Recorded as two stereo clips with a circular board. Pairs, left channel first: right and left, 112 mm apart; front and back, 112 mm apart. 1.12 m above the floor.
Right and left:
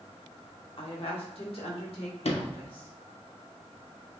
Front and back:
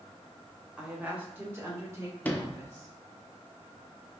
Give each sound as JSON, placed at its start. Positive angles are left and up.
{"t": 0.8, "sound": "a woman speaking", "azimuth_deg": -100, "distance_m": 0.8}
{"t": 2.2, "sound": "a sliding door", "azimuth_deg": -75, "distance_m": 0.5}